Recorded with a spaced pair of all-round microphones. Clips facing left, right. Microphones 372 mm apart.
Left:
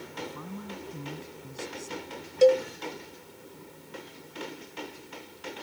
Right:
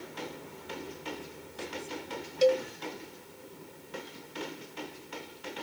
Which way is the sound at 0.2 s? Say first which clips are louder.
Left 6 dB; 80° left.